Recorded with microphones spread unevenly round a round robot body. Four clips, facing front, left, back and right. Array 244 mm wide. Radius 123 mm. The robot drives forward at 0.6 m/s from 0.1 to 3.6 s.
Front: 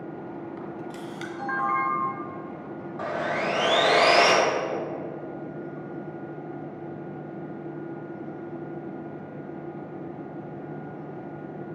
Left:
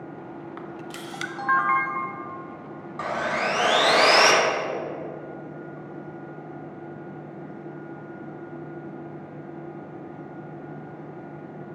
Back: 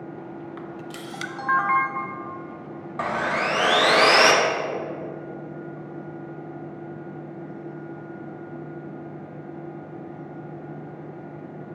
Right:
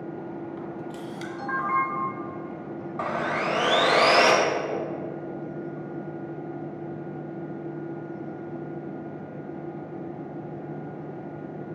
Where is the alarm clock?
No alarm clock in this recording.